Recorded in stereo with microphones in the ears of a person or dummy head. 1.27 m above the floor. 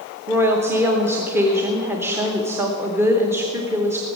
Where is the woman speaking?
15° right (ahead or behind), 1.0 m.